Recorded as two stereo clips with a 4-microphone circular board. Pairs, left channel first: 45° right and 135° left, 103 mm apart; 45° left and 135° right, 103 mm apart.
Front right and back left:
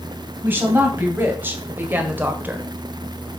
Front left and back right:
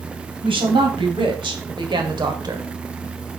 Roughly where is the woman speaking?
Behind right.